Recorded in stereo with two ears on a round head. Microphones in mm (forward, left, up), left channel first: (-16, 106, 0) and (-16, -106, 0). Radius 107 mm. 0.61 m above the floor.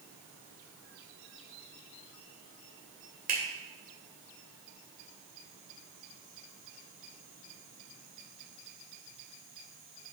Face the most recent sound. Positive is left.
turn(degrees=-40)  # may be behind; listen again after turning